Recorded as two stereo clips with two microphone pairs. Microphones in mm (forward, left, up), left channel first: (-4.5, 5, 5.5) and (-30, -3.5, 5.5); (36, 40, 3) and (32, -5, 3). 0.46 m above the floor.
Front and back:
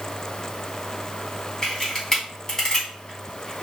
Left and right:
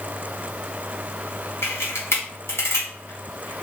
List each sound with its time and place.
1.6 s a camera shutter: 90° left, 3 m